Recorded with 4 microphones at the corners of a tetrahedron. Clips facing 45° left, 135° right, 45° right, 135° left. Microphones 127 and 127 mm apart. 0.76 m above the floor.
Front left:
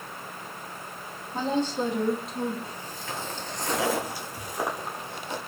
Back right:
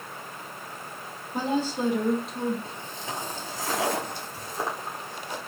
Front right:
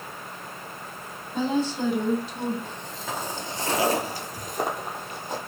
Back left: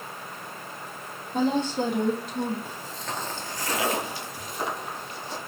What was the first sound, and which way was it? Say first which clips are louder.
A woman speaking: even, back left 1 dB; 145° left.